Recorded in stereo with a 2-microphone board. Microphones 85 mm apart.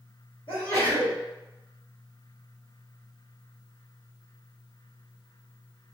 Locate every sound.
0.5 s a sneeze: 80° left, 1.5 m